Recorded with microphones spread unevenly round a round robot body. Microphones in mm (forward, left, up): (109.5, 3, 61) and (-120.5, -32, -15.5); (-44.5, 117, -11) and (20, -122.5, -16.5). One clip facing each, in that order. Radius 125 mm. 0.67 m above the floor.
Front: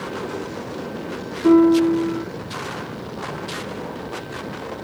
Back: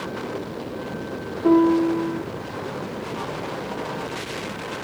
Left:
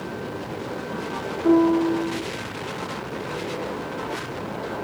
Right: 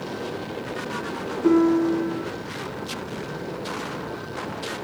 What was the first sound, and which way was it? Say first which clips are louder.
A piano: front 3 dB, even; 80° right.